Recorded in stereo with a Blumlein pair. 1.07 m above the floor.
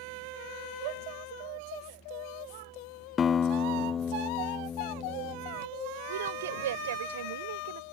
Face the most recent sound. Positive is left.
turn(degrees=-60)